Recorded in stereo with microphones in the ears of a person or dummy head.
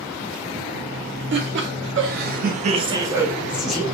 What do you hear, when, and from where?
1.3 s laughter: 50° right (ahead or behind), 0.9 m; by 3.8 s 5° left (ahead or behind), 0.9 m